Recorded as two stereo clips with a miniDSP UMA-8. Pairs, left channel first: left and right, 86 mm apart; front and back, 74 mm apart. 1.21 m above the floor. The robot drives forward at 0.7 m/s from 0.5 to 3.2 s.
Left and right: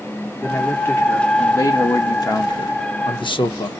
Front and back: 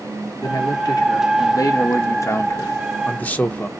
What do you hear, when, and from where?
0.4 s a man speaking: 25° left, 2.5 m; by 3.7 s 70° left, 1.3 m